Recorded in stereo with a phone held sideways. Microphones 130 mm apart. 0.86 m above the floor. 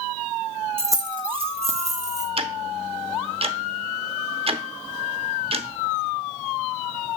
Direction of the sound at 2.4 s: 45° right (ahead or behind).